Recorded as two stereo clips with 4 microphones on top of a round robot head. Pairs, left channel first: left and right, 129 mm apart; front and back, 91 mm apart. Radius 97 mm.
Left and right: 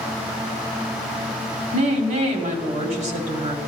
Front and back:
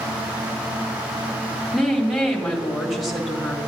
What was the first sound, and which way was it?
A woman speaking, 90° right.